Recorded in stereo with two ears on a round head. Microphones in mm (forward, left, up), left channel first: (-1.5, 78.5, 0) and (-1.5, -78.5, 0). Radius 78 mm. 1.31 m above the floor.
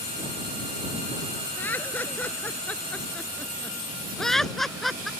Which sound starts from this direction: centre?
Laughter, at 1.6 s.